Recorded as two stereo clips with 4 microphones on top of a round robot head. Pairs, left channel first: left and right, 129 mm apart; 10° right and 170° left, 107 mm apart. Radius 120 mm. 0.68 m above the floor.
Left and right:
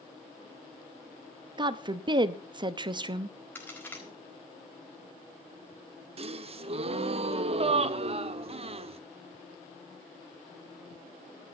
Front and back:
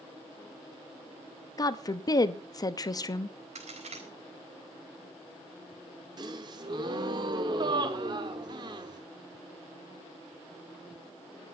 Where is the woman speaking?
50° right, 0.9 m.